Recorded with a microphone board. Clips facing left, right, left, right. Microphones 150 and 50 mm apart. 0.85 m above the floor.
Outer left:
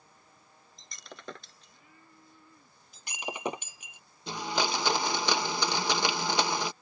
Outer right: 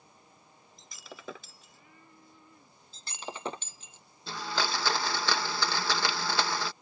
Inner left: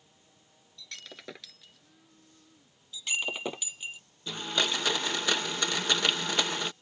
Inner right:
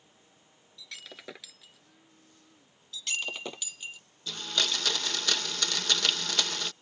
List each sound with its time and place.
0.8 s breaking glass: 5° right (ahead or behind)
2.9 s breaking glass: 15° left (ahead or behind)
4.3 s a blender: 20° left (ahead or behind)